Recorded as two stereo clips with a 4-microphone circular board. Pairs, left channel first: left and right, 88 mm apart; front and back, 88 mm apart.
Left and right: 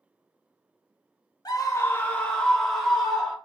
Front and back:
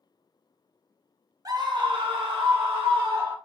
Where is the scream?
135° left, 0.8 m; by 3.4 s 175° right, 2 m.